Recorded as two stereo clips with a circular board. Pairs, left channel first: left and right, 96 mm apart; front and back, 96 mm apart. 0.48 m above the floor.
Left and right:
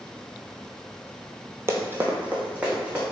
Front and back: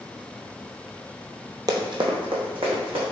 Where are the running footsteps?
145° right, 0.8 m; by 3.0 s 170° right, 2.5 m.